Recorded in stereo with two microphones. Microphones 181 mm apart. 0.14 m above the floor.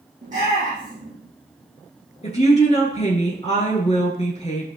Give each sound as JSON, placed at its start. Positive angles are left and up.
{"t": 0.2, "sound": "a shout", "side_deg": -45, "distance_m": 5.0}
{"t": 2.2, "sound": "a woman speaking", "side_deg": 35, "distance_m": 1.9}